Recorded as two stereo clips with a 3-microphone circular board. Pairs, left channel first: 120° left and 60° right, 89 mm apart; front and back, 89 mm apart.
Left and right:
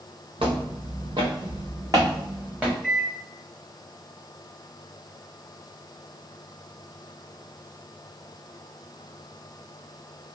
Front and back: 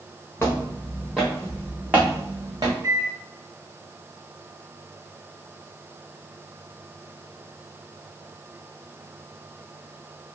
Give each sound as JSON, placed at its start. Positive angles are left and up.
{"t": 0.4, "sound": "footsteps", "azimuth_deg": -65, "distance_m": 1.7}
{"t": 2.8, "sound": "a microwave", "azimuth_deg": -150, "distance_m": 1.2}